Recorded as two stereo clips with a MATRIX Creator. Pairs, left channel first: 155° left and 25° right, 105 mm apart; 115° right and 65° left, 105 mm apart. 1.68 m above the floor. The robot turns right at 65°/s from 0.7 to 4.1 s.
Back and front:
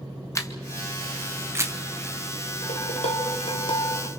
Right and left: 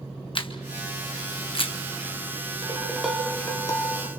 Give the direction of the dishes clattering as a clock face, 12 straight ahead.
8 o'clock.